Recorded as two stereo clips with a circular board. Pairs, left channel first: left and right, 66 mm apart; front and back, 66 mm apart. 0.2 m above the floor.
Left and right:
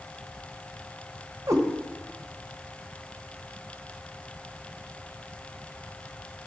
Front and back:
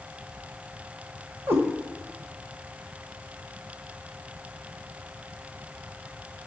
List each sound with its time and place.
1.5 s a cat meowing: 125° right, 1.2 m